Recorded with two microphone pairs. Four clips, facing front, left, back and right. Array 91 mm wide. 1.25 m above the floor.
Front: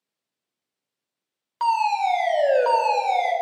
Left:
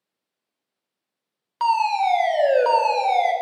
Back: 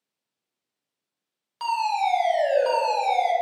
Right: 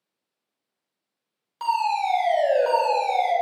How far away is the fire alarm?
About 4 m.